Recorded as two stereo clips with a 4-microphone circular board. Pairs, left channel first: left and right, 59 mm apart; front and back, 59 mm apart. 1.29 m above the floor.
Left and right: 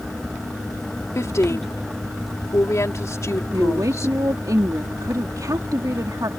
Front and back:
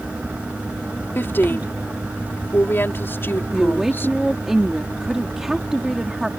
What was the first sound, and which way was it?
A woman speaking, 55° left.